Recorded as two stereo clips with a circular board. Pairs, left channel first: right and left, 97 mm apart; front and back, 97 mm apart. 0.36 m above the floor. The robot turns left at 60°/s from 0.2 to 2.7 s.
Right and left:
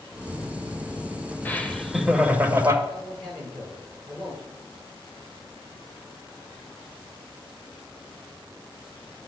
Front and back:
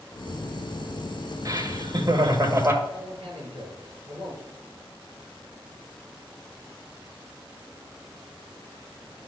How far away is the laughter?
About 1.3 m.